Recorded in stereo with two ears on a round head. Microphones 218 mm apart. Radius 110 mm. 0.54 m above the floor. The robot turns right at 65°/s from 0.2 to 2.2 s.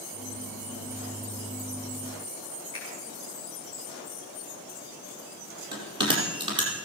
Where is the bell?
20° right (ahead or behind), 5 m.